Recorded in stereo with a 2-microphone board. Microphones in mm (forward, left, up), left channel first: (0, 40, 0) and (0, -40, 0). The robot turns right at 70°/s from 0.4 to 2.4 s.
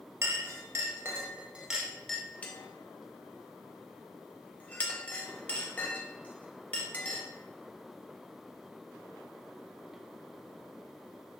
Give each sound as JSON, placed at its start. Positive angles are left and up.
{"t": 0.2, "sound": "a clink", "side_deg": -35, "distance_m": 0.5}